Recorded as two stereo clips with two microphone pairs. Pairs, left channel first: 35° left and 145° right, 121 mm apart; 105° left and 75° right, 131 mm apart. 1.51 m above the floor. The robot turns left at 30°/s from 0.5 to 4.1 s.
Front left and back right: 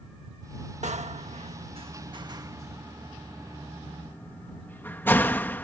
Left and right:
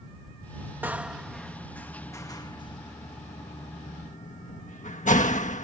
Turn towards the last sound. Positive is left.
turn(degrees=110)